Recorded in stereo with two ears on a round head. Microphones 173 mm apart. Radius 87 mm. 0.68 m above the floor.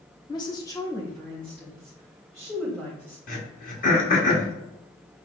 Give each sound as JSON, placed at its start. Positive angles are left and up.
{"t": 0.3, "sound": "a woman speaking", "side_deg": 25, "distance_m": 0.6}
{"t": 3.3, "sound": "throat clearing", "side_deg": 45, "distance_m": 1.3}